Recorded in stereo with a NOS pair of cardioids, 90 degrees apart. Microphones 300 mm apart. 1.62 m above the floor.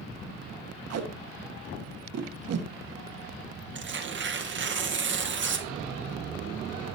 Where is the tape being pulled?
55° right, 1.6 m.